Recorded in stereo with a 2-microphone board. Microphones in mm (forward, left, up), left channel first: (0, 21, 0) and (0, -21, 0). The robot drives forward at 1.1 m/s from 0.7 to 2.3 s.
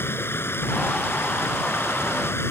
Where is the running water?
70° left (ahead or behind); by 2.5 s 75° left (ahead or behind).